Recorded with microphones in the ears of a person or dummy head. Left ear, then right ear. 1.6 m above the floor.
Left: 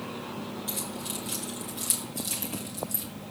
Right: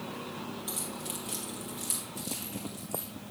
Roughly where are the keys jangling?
Centre.